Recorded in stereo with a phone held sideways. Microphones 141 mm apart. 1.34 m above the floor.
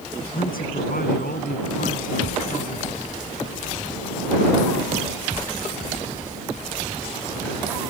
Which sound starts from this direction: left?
A man speaking, at 0.2 s.